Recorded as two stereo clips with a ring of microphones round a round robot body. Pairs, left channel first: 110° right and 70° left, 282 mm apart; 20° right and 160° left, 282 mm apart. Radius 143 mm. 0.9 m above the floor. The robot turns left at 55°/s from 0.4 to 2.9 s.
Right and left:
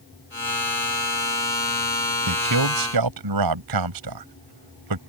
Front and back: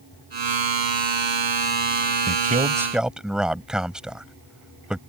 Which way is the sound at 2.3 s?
105° left.